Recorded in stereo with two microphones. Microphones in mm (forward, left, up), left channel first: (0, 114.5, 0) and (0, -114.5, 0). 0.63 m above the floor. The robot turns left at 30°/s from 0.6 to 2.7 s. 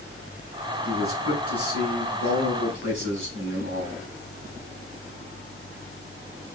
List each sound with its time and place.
0.8 s a man speaking: 65° right, 5.5 m; by 4.0 s 120° right, 5.5 m